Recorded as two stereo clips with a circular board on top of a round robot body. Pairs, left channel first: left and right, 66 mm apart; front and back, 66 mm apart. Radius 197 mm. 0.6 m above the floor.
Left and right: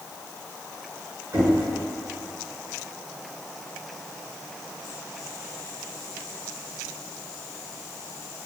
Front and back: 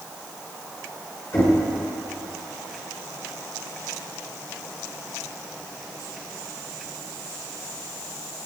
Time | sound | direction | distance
1.3 | knocking | 50° right | 7 m